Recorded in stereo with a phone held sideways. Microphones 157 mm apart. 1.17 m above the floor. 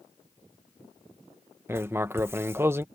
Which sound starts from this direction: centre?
Writing, at 1.7 s.